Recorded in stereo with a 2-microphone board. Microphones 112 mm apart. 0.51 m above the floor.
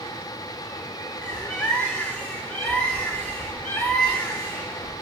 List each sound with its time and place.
1.2 s a bird: 15° left (ahead or behind), 1.5 m